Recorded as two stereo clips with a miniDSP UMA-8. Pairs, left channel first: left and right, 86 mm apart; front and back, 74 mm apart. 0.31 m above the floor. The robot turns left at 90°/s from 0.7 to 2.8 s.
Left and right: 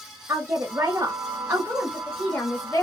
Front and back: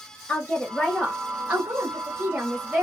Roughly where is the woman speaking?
Ahead right.